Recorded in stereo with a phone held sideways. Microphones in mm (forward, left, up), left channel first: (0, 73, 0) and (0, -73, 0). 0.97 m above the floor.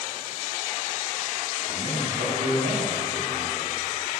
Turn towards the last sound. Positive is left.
turn(degrees=-60)  # may be behind; listen again after turning